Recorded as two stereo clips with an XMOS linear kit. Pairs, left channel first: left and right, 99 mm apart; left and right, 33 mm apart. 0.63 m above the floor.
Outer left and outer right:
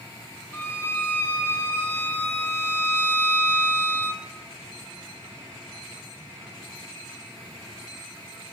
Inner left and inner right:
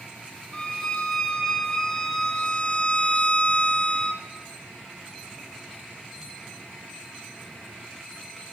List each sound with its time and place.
0.5 s a violin: 20° left (ahead or behind), 0.9 m